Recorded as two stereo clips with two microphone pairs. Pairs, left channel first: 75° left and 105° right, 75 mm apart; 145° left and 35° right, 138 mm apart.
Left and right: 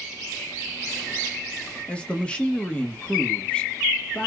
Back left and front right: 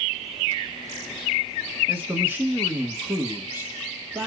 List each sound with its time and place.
1.9 s a man speaking: 20° left, 1.1 m